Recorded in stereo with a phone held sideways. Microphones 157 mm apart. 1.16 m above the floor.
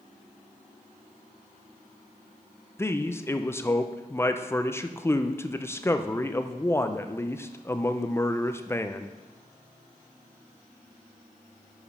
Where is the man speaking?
15° left (ahead or behind), 0.5 m.